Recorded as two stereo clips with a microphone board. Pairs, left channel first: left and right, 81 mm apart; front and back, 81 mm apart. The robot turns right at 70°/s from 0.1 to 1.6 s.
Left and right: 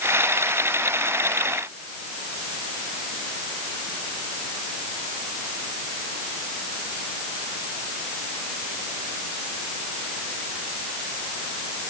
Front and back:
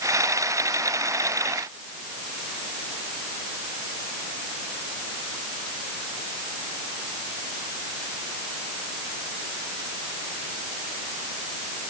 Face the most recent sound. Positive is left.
No sound to turn to.